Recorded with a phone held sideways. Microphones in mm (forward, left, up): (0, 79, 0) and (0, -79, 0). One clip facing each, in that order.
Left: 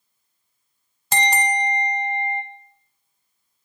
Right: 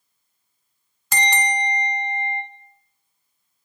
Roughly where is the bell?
Left.